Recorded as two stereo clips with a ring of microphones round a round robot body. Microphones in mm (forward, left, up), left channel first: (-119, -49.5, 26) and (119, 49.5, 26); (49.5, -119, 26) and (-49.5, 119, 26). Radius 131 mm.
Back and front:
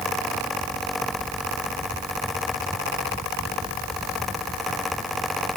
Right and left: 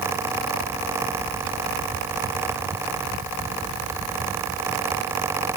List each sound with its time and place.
Only background noise.